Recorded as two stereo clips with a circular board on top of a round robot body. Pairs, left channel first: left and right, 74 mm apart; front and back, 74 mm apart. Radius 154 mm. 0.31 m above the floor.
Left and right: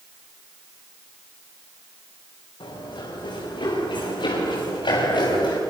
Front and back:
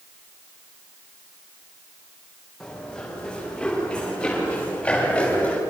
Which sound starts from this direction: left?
Running footsteps, at 2.6 s.